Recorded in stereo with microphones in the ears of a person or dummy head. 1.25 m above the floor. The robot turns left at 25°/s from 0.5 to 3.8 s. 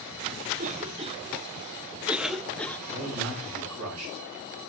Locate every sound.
0.6 s a cough: 40° right (ahead or behind), 0.6 m; by 2.8 s 15° left (ahead or behind), 0.6 m
2.9 s a man speaking: 70° right (ahead or behind), 8 m; by 4.2 s 85° right, 8 m